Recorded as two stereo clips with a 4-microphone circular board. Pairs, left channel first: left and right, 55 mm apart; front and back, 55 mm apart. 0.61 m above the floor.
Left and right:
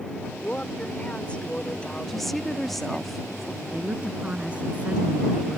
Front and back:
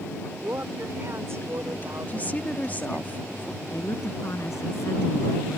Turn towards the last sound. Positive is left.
turn(degrees=-25)